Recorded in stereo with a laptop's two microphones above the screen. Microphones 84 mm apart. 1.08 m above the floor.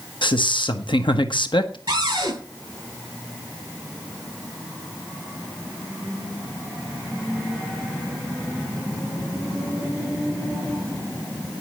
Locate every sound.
0.2 s a man speaking: 75° left (ahead or behind), 1.1 m
1.9 s a cupboard door: 45° right (ahead or behind), 7 m